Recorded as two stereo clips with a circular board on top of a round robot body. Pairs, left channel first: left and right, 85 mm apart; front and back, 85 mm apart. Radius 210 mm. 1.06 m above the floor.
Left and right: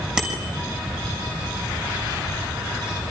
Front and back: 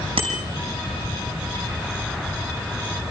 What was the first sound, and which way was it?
A bicycle bell, 170° right.